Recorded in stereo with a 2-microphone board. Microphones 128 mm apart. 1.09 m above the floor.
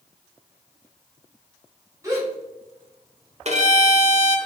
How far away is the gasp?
About 1.5 m.